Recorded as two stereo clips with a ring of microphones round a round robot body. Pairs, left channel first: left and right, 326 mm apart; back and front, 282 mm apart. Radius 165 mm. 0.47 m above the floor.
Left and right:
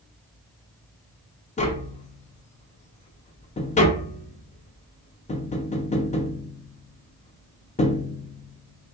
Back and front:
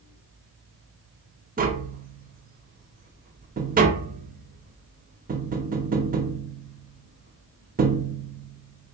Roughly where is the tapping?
Ahead left.